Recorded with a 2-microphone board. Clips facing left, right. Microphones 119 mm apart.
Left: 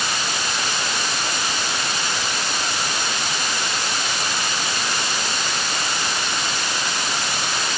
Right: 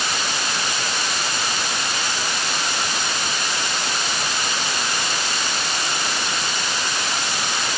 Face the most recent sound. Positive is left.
No sound to turn to.